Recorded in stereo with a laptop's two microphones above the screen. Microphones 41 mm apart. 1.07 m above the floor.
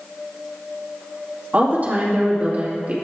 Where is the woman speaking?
40° right (ahead or behind), 2 m.